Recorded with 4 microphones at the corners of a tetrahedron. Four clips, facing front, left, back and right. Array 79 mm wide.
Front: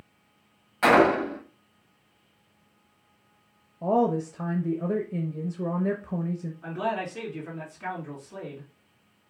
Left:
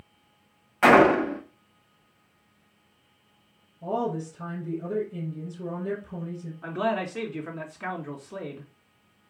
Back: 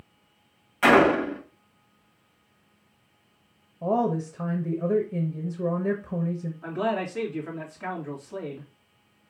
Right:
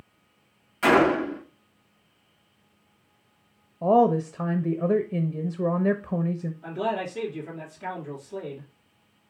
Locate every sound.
0.8 s a gunshot: 70° left, 1.1 m
3.8 s a woman speaking: 85° right, 0.6 m
6.6 s a man speaking: 100° left, 1.9 m